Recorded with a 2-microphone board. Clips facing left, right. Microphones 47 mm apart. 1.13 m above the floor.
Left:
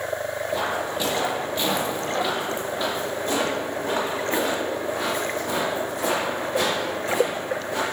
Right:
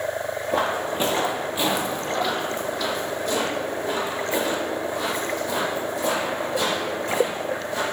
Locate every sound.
0.5 s footsteps: 45° right (ahead or behind), 1.6 m; by 7.8 s 60° left (ahead or behind), 5.5 m